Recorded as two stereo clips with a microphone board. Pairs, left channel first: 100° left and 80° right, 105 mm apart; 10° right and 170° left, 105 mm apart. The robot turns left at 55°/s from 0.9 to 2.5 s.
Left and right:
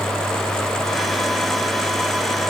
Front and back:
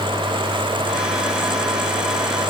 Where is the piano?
No piano in this recording.